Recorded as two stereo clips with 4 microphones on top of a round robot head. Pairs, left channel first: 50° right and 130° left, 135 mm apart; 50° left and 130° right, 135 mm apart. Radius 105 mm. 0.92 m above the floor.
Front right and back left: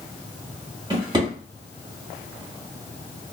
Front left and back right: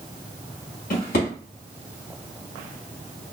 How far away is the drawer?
About 2.0 m.